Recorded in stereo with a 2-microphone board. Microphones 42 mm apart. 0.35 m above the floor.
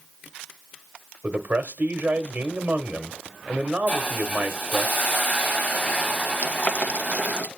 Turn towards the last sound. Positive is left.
turn(degrees=40)  # may be behind; listen again after turning